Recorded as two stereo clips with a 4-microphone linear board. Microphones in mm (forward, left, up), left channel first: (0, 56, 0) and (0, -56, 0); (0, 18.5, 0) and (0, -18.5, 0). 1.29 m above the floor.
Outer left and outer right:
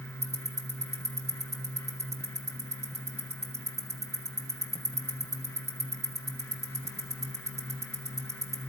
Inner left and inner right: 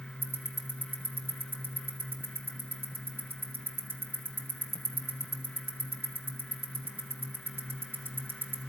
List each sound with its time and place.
0.2 s ticking: 80° right, 1.5 m